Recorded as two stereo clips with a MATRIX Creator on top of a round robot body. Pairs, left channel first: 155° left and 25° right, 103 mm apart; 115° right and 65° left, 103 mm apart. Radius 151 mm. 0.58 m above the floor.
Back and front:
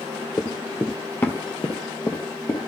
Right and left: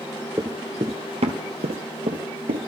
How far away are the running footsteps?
About 0.5 m.